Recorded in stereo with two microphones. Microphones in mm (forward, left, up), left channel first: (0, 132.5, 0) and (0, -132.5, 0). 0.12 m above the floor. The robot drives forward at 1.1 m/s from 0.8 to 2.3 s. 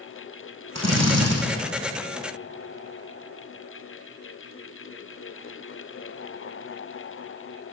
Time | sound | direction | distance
0.8 | a drill | 75° right (ahead or behind) | 3 m